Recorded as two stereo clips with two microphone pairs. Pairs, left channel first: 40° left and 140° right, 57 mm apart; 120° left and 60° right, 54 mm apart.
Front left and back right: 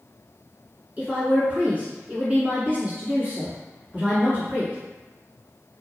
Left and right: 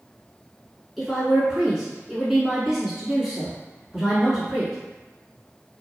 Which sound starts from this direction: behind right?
A woman speaking, at 1.0 s.